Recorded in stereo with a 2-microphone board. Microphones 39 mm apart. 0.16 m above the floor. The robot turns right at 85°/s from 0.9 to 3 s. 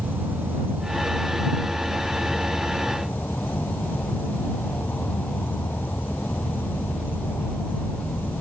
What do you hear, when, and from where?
0.0 s an insect: 65° right; by 8.4 s 115° left